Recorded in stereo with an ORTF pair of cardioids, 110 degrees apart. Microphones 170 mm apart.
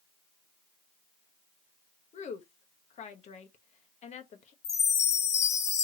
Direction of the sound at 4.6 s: 50° left.